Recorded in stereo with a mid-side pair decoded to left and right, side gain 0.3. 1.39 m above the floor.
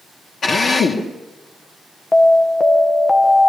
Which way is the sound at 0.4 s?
60° left.